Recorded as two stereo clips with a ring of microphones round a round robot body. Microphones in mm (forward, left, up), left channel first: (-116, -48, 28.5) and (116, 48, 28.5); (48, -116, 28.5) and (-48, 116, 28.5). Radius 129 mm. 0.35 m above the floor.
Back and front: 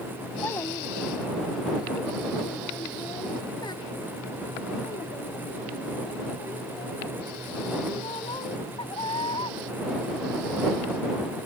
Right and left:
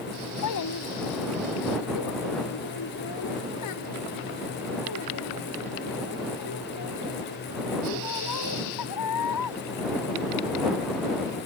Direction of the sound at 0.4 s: 75° right.